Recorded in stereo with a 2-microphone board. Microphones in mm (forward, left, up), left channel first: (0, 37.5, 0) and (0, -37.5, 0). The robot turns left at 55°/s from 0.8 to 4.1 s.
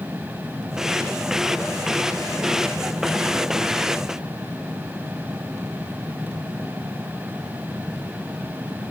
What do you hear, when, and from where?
Only background noise.